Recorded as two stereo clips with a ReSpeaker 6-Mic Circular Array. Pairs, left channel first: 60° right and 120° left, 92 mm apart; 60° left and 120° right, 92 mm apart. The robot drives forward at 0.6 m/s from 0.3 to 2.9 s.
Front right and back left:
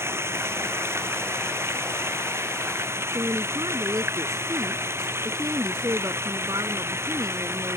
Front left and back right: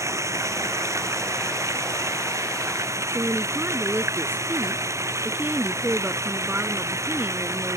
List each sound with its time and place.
0.0 s running water: 175° right
3.1 s a woman speaking: 170° left